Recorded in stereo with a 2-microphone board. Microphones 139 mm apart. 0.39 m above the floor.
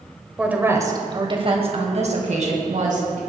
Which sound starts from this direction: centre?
A woman speaking, at 0.4 s.